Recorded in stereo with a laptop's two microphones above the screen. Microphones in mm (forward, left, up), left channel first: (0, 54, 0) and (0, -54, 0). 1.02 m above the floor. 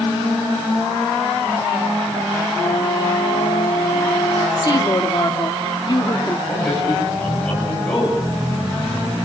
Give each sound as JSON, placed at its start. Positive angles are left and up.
{"t": 2.5, "sound": "a flute", "side_deg": 30, "distance_m": 9.0}
{"t": 4.6, "sound": "a woman speaking", "side_deg": 40, "distance_m": 1.7}
{"t": 6.5, "sound": "a man speaking", "side_deg": 10, "distance_m": 7.5}